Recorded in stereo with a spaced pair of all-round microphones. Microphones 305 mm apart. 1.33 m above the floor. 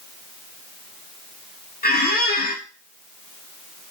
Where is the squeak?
30° left (ahead or behind), 0.6 m.